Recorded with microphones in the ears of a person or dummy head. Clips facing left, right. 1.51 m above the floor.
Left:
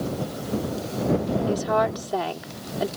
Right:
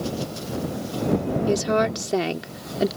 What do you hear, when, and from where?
1.5 s a woman speaking: 30° right (ahead or behind)